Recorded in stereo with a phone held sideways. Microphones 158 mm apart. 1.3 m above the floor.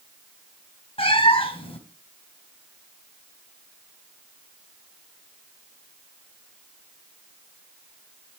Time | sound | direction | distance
1.0 | a cat meowing | 35° left (ahead or behind) | 3 m